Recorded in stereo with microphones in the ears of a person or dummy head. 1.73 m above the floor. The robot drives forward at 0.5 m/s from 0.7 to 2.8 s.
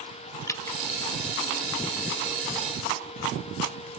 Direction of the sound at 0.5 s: 15° left (ahead or behind).